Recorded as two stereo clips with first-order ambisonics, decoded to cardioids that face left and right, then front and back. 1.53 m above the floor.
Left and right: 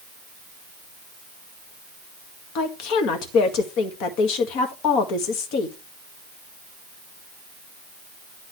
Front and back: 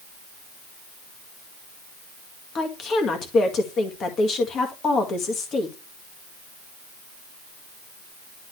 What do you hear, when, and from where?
2.5 s a woman speaking: 60° left, 1.8 m